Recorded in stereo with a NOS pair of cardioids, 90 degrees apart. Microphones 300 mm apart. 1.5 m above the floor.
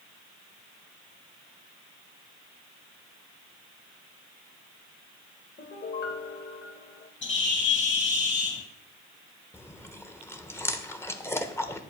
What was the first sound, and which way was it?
A piano, 35° left.